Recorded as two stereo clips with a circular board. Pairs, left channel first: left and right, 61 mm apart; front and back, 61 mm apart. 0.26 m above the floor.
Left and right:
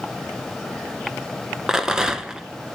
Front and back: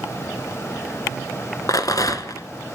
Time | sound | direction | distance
1.7 | a rattle | 15° right | 1.4 m